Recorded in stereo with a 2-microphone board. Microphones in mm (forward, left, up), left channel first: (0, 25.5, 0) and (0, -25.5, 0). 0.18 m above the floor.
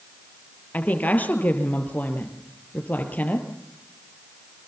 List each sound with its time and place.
0.7 s a woman speaking: 35° left (ahead or behind), 4 m